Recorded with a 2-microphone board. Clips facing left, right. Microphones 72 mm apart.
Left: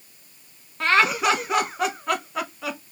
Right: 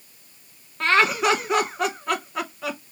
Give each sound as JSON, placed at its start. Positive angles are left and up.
{"t": 0.8, "sound": "laughter", "side_deg": 0, "distance_m": 1.4}